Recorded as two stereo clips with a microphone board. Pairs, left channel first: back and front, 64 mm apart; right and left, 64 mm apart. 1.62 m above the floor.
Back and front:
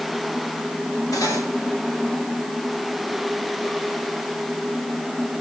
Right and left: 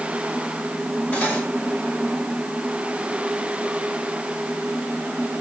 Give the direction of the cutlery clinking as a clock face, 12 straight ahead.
5 o'clock.